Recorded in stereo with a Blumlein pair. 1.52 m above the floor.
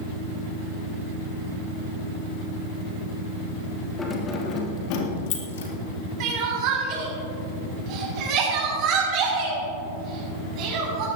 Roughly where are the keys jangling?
Ahead.